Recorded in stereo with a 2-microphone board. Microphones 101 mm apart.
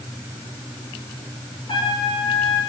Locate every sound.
1.7 s a trumpet: 55° left (ahead or behind), 9.5 m